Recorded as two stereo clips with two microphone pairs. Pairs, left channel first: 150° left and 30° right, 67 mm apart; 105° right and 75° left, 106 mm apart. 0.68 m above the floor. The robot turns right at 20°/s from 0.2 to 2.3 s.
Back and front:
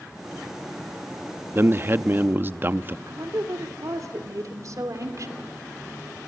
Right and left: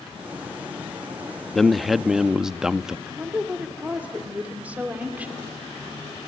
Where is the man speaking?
20° right, 0.6 m; by 3.0 s 5° right, 0.6 m.